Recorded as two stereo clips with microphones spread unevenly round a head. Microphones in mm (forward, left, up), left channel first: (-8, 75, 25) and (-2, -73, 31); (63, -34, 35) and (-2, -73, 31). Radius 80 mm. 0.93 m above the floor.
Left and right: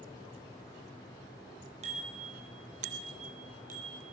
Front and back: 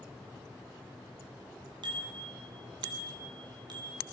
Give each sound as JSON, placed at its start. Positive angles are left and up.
{"t": 1.8, "sound": "a bicycle bell", "azimuth_deg": -135, "distance_m": 6.0}